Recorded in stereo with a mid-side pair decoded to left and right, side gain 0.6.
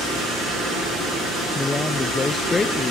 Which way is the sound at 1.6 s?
20° left.